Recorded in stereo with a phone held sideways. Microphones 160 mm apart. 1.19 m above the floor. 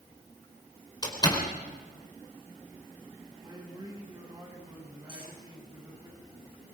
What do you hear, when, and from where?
1.0 s a door slam: 25° left (ahead or behind), 4 m
3.4 s a man speaking: 30° right (ahead or behind), 7.5 m
5.1 s cutlery clinking: 80° right, 9.5 m